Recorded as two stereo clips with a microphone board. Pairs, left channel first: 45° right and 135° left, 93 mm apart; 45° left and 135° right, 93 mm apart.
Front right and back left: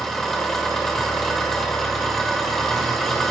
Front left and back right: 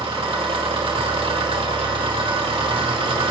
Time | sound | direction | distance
0.0 | an engine running | 130° right | 1.7 m